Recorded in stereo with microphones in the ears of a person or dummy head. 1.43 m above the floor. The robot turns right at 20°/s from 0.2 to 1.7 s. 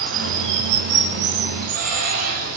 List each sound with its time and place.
0.0 s running water: 85° right, 6 m; by 2.6 s 55° right, 6 m